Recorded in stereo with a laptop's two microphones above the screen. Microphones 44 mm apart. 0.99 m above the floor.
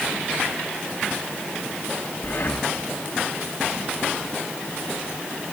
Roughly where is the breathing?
Left.